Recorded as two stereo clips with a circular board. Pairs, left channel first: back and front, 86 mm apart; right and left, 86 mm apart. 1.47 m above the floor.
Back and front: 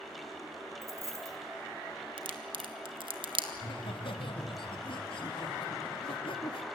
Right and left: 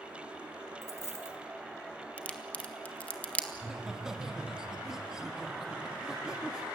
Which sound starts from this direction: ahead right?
A dropped coin, at 0.8 s.